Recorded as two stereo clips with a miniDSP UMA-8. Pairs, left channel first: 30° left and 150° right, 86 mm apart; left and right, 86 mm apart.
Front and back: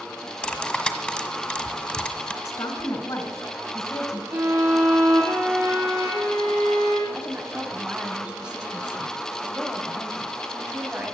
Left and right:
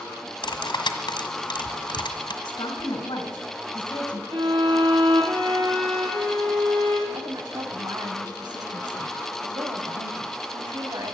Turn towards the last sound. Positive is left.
turn(degrees=-75)